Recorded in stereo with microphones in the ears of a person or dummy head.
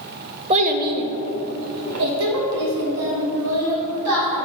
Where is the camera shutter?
No camera shutter in this recording.